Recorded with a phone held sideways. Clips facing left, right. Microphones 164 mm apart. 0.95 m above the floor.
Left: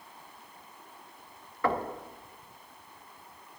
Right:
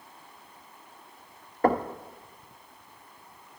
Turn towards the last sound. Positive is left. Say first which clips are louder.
# right 6 dB
turn(degrees=-45)  # may be behind; listen again after turning